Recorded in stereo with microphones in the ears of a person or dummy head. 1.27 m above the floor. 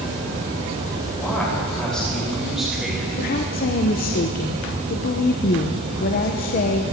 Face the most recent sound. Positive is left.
turn(degrees=45)  # may be behind; listen again after turning